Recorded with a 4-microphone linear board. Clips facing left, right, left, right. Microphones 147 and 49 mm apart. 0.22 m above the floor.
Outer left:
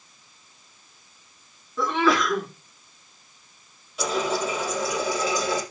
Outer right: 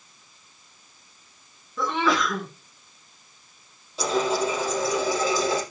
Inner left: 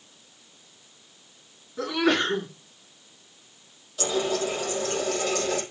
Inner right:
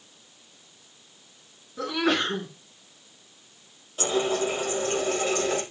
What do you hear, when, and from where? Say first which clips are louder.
1.8 s a sneeze: outer left 2 dB, inner left 2 dB; centre (ahead or behind), 3 m
4.0 s a running tap: outer right 2 dB, inner right 1 dB; 30° right (ahead or behind), 4.5 m